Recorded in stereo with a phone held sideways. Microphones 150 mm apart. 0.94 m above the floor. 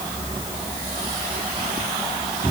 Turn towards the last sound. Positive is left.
No sound to turn to.